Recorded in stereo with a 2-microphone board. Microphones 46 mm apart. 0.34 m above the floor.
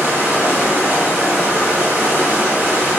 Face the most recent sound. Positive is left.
turn(degrees=-55)  # may be behind; listen again after turning